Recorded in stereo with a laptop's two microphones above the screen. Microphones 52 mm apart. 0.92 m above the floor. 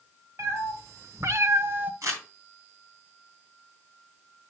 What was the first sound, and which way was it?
A cat meowing, 75° right (ahead or behind).